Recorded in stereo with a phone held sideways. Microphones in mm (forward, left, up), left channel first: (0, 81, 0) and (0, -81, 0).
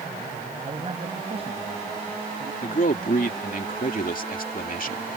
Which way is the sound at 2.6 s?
60° left (ahead or behind).